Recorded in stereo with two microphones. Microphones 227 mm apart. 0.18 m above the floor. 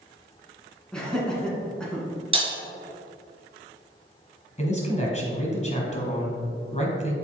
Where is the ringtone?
I don't hear a ringtone.